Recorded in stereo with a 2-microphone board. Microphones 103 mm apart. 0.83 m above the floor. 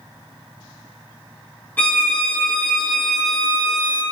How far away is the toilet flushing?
No toilet flushing in this recording.